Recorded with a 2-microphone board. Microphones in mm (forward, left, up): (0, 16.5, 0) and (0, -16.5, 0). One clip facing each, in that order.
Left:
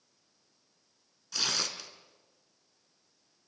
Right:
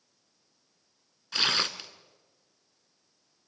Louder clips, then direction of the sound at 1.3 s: Right 6 dB; 45° right (ahead or behind).